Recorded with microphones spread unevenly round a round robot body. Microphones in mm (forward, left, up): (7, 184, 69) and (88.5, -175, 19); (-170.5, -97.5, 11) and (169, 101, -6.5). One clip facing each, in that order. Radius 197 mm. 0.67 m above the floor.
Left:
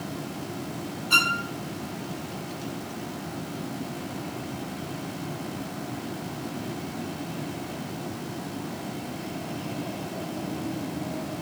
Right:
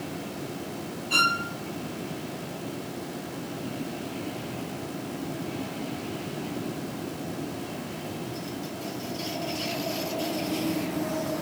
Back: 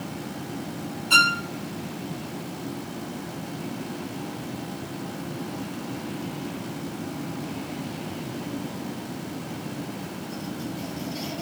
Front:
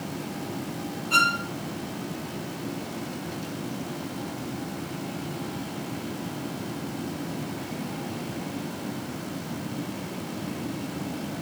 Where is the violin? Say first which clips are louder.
Even, back 1 dB; 170° left, 1.5 m.